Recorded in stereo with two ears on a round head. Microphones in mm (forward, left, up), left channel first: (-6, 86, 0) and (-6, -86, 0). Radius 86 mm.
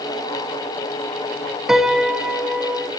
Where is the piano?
5° right (ahead or behind), 1.0 m.